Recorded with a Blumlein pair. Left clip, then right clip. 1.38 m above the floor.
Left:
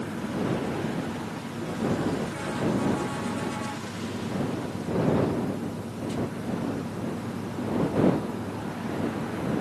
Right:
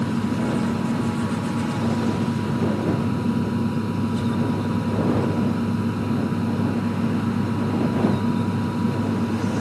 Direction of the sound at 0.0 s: 35° right.